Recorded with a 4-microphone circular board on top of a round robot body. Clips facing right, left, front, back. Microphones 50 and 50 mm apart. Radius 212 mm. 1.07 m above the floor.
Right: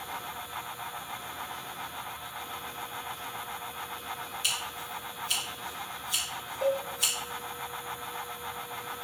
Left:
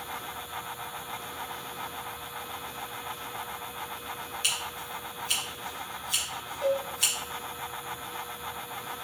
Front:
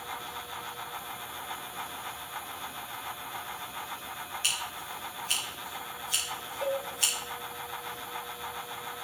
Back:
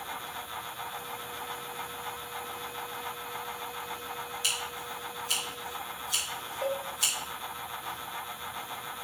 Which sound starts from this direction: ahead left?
Scissors, at 4.4 s.